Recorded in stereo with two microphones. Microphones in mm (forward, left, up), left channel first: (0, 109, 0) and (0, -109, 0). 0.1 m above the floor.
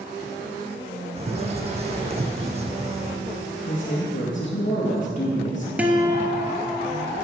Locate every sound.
1.2 s a bird: 30° right (ahead or behind), 0.9 m
3.7 s a man speaking: 40° left (ahead or behind), 1.7 m
5.8 s a guitar: 5° right (ahead or behind), 0.9 m